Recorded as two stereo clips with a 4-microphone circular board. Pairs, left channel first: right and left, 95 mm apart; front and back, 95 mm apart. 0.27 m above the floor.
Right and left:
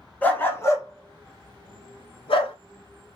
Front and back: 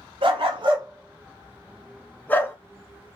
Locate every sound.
0.2 s a dog barking: 160° right, 0.8 m; by 2.5 s 65° right, 0.8 m